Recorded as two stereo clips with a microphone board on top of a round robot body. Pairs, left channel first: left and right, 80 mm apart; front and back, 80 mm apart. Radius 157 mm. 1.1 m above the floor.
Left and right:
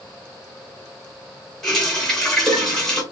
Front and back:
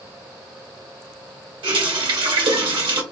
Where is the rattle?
No rattle in this recording.